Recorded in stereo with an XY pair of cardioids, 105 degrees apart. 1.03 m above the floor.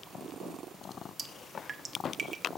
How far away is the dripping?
About 0.9 m.